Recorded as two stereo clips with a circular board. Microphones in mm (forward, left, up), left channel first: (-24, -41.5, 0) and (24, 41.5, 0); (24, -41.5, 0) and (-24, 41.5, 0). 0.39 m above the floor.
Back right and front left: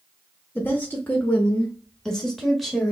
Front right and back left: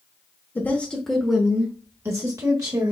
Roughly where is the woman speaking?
Right.